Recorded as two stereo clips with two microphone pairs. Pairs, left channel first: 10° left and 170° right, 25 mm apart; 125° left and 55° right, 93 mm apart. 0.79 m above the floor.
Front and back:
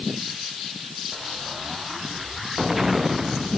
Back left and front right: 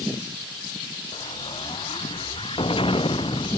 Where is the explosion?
110° left.